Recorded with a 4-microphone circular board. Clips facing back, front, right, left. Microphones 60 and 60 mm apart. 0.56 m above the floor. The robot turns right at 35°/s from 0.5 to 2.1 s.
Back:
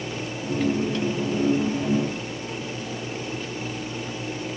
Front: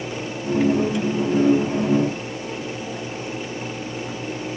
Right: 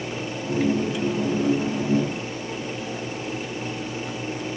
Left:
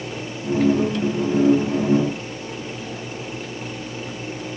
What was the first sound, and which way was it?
Only background noise.